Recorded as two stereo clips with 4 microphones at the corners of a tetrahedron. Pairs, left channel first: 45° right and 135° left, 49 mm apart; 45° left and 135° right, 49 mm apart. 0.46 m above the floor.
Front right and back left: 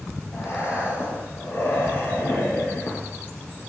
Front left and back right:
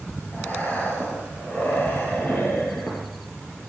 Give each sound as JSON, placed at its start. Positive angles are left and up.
{"t": 0.3, "sound": "breathing", "azimuth_deg": -10, "distance_m": 7.5}